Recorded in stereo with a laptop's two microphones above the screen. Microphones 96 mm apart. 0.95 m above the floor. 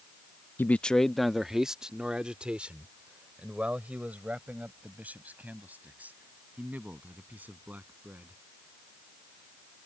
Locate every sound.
0.6 s a man speaking: 20° left (ahead or behind); by 8.4 s 15° right (ahead or behind)